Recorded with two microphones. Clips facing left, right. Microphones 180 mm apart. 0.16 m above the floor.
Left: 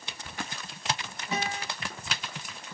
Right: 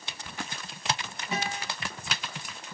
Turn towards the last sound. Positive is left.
turn(degrees=0)  # may be behind; listen again after turning